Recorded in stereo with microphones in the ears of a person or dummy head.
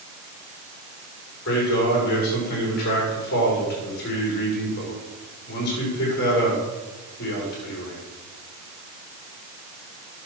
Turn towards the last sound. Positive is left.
turn(degrees=55)  # may be behind; listen again after turning